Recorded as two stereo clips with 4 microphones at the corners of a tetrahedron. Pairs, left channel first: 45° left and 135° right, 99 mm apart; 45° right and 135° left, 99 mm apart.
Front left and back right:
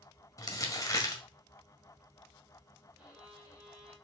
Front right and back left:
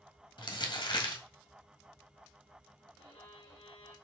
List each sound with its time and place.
0.4 s crumpling: 10° right, 1.6 m
3.0 s a violin: 55° right, 5.5 m